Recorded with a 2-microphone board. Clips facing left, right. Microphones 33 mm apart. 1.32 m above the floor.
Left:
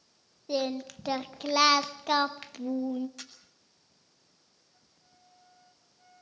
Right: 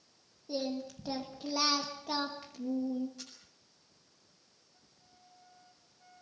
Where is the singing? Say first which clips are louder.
Left 5 dB; 80° left, 1.4 m.